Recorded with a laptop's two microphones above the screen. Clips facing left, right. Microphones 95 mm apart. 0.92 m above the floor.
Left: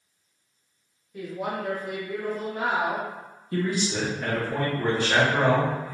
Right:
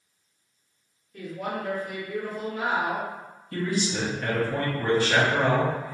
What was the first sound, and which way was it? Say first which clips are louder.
A woman speaking: left 1 dB; 10° left (ahead or behind).